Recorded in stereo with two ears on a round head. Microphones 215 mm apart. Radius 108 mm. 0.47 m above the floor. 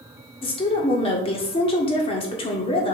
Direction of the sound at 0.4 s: 25° left (ahead or behind).